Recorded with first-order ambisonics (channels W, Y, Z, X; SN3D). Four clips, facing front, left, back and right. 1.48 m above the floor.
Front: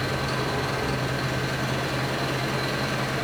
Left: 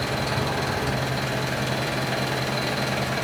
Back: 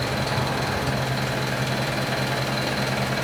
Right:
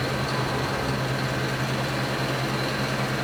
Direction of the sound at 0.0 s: 140° left.